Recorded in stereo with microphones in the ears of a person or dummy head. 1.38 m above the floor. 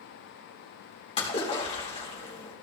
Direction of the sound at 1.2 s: 35° left (ahead or behind).